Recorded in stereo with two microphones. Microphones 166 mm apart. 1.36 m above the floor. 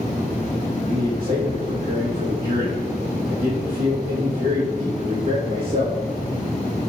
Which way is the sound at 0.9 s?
55° right (ahead or behind).